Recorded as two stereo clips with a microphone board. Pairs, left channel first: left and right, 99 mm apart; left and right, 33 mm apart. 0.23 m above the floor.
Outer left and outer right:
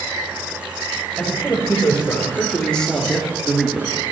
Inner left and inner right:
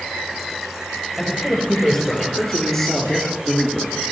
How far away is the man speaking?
About 4.5 m.